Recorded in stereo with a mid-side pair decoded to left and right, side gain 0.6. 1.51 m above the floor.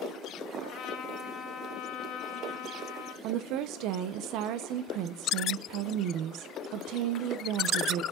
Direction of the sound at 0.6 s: 60° left.